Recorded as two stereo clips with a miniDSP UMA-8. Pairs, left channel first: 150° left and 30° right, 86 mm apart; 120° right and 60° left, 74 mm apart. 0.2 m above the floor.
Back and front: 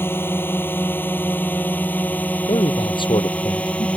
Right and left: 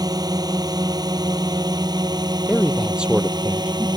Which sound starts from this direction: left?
A drone, at 0.0 s.